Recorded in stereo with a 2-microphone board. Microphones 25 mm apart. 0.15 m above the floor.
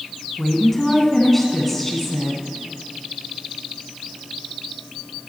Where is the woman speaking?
10° left (ahead or behind), 1.0 m.